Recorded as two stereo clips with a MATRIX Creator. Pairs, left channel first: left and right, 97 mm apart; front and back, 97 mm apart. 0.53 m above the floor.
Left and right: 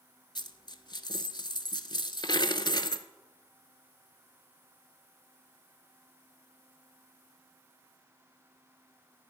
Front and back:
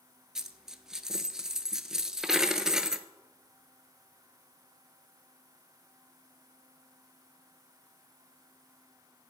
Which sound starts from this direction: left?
A dropped coin, at 0.3 s.